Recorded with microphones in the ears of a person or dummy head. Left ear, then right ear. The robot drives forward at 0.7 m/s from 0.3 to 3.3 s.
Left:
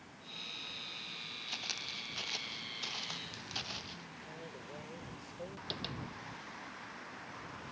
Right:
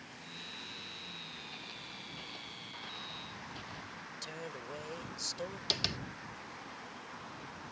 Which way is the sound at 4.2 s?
80° right.